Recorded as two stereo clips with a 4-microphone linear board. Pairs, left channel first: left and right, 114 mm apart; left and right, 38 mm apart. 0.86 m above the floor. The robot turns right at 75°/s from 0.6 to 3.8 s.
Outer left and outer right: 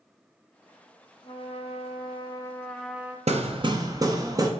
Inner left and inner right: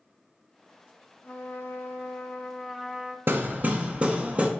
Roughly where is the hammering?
Right.